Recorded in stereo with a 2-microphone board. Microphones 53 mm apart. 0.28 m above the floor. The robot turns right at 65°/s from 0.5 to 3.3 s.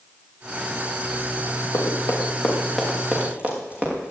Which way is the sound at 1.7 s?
70° left (ahead or behind).